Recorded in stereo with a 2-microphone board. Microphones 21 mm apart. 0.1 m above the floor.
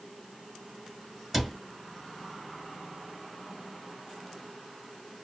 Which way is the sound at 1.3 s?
Centre (ahead or behind).